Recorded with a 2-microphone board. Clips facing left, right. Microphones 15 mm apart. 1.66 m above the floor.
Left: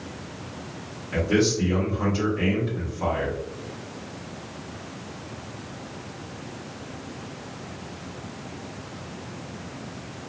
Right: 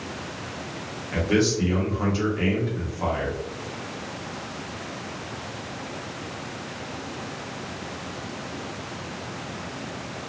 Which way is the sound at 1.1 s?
15° right (ahead or behind).